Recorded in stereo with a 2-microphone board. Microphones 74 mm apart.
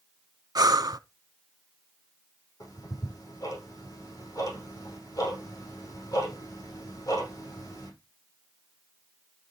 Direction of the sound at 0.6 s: 60° right (ahead or behind).